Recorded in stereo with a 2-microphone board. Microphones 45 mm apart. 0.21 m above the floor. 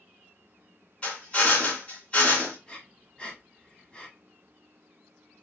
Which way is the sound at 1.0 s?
25° left (ahead or behind).